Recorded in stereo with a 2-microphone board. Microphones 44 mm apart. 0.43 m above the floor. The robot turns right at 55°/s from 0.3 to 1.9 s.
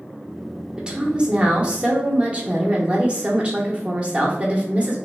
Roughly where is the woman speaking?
Centre.